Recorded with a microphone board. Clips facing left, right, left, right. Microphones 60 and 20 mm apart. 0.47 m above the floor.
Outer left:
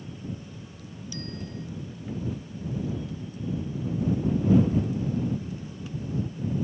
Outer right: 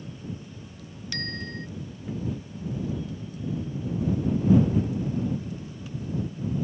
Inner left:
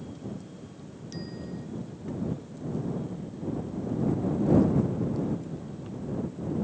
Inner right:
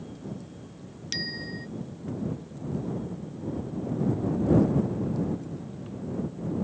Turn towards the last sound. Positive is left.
turn(degrees=-65)  # may be behind; listen again after turning